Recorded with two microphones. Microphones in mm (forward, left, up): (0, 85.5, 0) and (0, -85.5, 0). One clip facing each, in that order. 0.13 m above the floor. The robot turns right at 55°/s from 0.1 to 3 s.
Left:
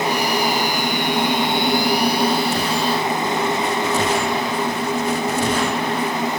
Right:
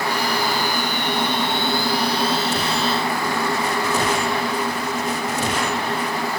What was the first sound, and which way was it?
Only background noise.